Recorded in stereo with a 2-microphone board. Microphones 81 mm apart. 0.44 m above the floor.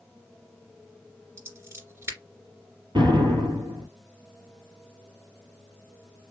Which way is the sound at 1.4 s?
30° right (ahead or behind).